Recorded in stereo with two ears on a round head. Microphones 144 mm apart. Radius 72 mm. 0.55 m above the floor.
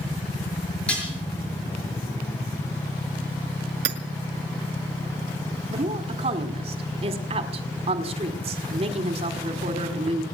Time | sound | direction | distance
0.9 | dishes clattering | 5° left (ahead or behind) | 6.5 m
3.9 | hammering | 75° right (ahead or behind) | 1.8 m
5.7 | a woman speaking | 35° right (ahead or behind) | 1.7 m